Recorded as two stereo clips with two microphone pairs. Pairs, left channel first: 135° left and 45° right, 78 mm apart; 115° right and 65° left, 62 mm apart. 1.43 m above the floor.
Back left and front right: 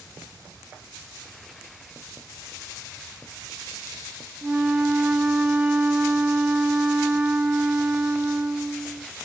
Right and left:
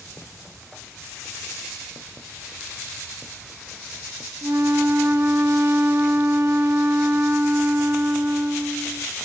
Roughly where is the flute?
Ahead left.